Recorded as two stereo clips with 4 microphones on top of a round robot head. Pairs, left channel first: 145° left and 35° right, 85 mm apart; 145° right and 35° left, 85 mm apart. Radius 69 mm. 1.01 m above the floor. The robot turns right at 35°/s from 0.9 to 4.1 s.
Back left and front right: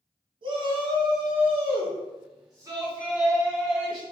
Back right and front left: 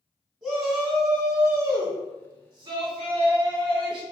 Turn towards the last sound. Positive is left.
turn(degrees=65)